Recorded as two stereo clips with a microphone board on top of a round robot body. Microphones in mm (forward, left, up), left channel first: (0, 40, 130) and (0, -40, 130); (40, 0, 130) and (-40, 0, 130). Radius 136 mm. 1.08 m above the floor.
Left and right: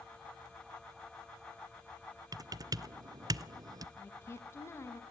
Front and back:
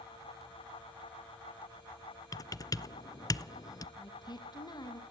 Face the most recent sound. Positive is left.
turn(degrees=35)